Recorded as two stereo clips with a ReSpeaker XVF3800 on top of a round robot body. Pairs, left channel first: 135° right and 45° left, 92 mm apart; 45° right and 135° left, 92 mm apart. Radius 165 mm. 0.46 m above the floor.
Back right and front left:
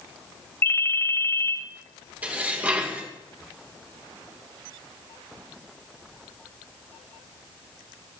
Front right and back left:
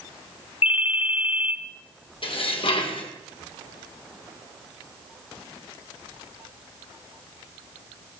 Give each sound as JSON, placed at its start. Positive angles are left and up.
{"t": 0.6, "sound": "a ringtone", "azimuth_deg": -65, "distance_m": 1.1}
{"t": 2.2, "sound": "dishes clattering", "azimuth_deg": -30, "distance_m": 2.0}